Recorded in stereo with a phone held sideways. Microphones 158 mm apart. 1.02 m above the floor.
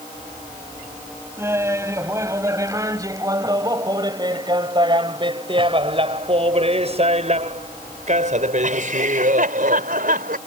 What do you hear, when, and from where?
1.4 s laughter: 20° right (ahead or behind); by 10.4 s 75° right (ahead or behind)